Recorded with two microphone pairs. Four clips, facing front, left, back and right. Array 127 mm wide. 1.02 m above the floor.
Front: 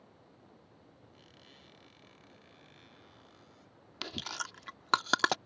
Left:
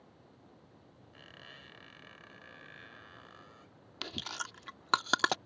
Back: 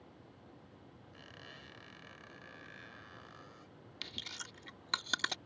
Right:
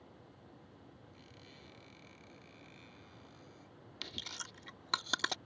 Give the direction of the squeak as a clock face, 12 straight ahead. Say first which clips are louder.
Left 3 dB, back 4 dB; 8 o'clock.